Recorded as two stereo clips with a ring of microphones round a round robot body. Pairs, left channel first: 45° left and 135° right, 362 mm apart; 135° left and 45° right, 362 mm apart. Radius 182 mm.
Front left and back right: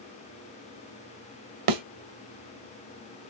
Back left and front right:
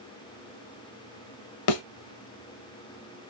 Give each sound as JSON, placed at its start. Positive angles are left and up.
{"t": 1.7, "sound": "a thud", "azimuth_deg": -175, "distance_m": 0.6}